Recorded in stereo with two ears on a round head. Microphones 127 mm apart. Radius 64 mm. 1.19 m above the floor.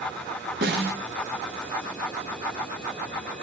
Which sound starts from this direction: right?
A snare drum, at 0.6 s.